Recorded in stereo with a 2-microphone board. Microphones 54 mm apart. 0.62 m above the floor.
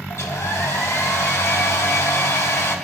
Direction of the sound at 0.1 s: 70° left (ahead or behind).